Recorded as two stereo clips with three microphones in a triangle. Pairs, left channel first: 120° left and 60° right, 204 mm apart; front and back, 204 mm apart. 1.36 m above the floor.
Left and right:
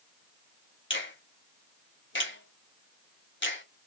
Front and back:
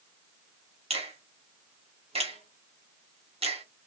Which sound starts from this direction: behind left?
A finger snap, at 0.9 s.